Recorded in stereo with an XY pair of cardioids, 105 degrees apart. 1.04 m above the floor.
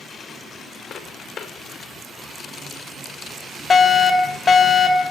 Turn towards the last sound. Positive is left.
turn(degrees=45)